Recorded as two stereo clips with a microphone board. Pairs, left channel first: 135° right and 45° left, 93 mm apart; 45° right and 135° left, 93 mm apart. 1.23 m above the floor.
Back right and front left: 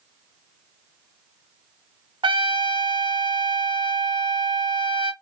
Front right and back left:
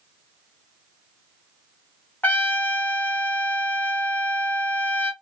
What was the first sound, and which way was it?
A trumpet, 25° left.